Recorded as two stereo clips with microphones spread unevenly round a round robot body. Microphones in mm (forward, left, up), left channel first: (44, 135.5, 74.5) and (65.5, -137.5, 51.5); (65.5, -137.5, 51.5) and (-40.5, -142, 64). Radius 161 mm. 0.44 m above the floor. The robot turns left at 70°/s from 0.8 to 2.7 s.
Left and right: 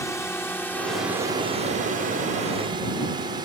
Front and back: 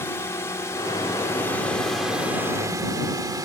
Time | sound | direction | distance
0.0 | a drone | 15° left | ?